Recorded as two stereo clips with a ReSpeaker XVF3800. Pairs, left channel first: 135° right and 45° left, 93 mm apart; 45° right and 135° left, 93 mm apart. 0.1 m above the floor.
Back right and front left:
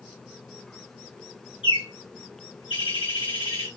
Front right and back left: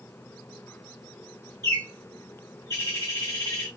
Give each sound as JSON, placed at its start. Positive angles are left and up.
{"t": 1.6, "sound": "a bird", "azimuth_deg": -105, "distance_m": 2.5}